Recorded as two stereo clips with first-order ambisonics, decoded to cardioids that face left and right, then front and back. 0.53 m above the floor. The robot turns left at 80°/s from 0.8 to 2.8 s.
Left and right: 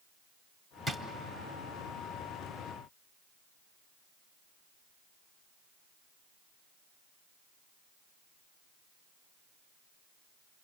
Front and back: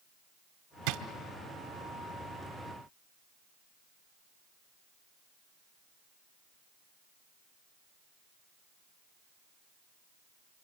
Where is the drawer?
170° left, 1.0 m; by 1.0 s 160° left, 1.0 m.